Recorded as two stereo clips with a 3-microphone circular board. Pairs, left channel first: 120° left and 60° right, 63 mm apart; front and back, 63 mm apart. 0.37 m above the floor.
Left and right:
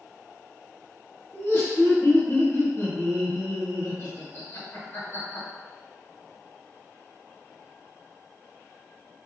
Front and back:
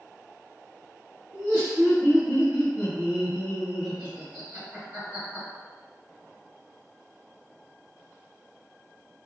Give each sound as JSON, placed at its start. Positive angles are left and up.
{"t": 1.3, "sound": "laughter", "azimuth_deg": 125, "distance_m": 1.1}